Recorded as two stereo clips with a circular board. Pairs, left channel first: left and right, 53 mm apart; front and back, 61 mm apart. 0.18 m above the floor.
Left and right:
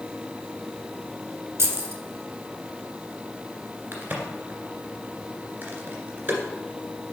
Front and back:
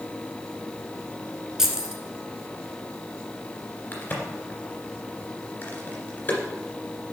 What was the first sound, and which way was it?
Keys jangling, 100° right.